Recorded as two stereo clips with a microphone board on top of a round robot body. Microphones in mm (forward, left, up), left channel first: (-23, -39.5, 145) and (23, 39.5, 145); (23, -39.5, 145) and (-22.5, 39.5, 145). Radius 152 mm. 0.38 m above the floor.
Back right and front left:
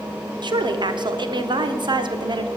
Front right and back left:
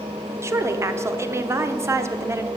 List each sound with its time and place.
0.4 s a woman speaking: 65° left, 1.3 m